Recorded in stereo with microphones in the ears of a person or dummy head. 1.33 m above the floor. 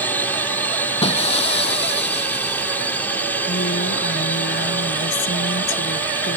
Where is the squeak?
I don't hear a squeak.